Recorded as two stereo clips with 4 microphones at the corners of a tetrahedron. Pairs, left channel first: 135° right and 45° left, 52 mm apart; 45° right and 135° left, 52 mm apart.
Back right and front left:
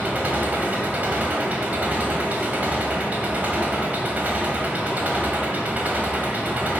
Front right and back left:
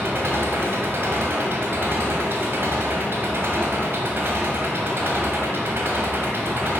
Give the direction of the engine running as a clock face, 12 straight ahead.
9 o'clock.